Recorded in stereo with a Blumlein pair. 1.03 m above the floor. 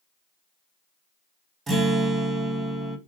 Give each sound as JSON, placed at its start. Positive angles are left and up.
{"t": 1.7, "sound": "a guitar", "azimuth_deg": -15, "distance_m": 0.9}